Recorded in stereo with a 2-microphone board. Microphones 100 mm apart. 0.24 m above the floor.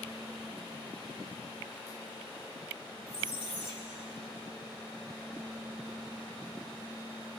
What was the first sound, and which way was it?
A squeak, 75° left (ahead or behind).